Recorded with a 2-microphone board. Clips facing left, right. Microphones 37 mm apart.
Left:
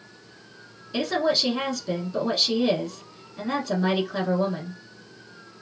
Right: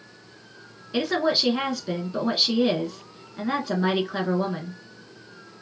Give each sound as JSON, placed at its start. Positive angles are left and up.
{"t": 0.9, "sound": "a woman speaking", "side_deg": -20, "distance_m": 1.1}